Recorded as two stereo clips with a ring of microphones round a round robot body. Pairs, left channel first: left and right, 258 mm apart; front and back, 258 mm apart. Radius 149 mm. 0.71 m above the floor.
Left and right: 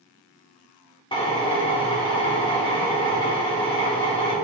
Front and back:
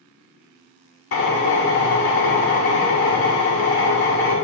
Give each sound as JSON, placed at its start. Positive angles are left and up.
{"t": 1.1, "sound": "a drill", "azimuth_deg": 20, "distance_m": 1.9}